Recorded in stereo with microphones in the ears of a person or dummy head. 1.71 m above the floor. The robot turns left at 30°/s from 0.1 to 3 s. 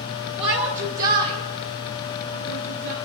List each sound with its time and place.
0.4 s a shout: 30° right (ahead or behind), 1.0 m; by 3.0 s 70° right (ahead or behind), 1.0 m